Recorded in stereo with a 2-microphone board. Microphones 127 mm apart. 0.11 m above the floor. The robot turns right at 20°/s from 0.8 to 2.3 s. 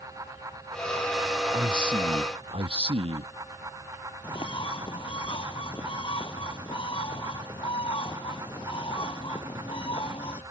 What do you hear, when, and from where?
1.5 s a man speaking: 35° right (ahead or behind); by 3.3 s 50° right (ahead or behind)
4.2 s a bird: 40° left (ahead or behind)